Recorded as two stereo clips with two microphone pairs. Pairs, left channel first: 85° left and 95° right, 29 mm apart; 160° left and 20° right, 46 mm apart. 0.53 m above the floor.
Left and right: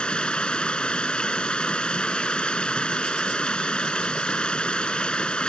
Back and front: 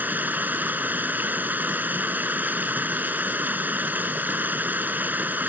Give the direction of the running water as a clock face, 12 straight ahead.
11 o'clock.